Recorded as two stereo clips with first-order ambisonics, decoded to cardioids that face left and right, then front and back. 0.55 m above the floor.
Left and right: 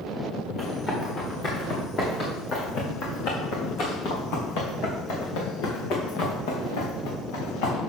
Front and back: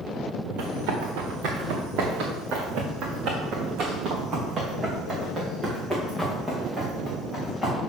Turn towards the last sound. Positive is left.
turn(degrees=85)